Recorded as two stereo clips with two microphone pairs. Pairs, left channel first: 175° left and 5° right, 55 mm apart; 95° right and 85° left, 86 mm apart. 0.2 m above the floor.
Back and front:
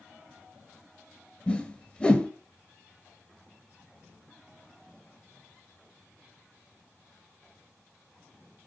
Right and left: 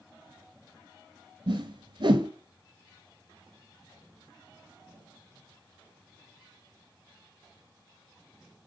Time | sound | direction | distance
1.5 | a whoosh | 110° left | 0.5 m